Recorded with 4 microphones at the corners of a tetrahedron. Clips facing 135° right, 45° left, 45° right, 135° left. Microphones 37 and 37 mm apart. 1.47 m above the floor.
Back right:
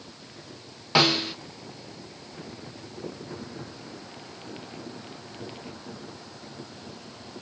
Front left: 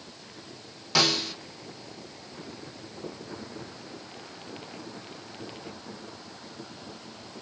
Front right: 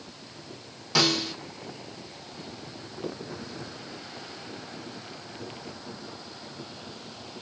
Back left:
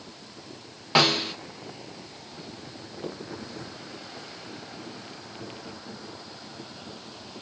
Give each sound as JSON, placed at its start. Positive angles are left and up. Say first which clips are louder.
{"t": 0.9, "sound": "a snare drum", "louder": "back right 3 dB, back left 3 dB", "azimuth_deg": 175, "distance_m": 0.7}